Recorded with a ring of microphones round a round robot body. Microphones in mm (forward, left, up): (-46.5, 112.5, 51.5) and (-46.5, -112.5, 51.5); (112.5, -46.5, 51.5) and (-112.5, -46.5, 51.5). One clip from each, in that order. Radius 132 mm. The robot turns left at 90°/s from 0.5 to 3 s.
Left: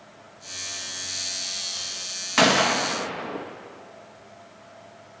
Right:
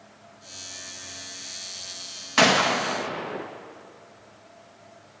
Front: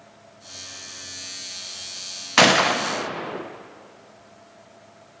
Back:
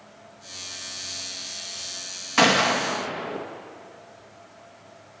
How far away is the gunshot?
About 1.0 m.